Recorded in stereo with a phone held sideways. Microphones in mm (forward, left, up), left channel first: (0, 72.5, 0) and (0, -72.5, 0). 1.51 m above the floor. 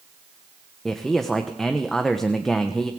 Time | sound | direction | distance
0.8 | a man speaking | centre (ahead or behind) | 1.1 m